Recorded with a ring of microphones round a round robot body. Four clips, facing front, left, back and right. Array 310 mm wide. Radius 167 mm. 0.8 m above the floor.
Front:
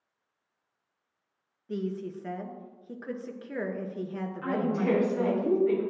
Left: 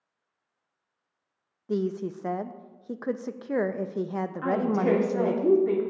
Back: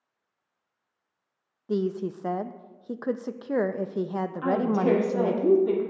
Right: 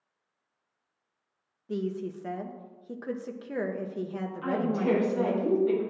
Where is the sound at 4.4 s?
140° left, 2.0 m.